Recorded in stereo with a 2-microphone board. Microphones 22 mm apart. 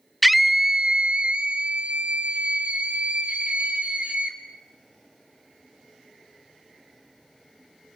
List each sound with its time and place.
0.2 s a scream: centre (ahead or behind), 0.5 m; by 4.4 s 65° right (ahead or behind), 3 m